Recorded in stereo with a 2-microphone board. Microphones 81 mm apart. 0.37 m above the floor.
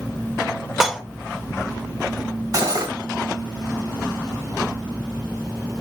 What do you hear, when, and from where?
0.8 s dishes clattering: 5° right (ahead or behind), 0.6 m
2.5 s cutlery clinking: 45° right (ahead or behind), 1.1 m